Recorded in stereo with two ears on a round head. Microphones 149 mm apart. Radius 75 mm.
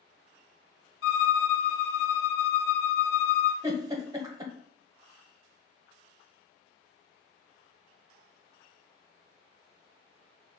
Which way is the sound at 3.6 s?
20° right (ahead or behind).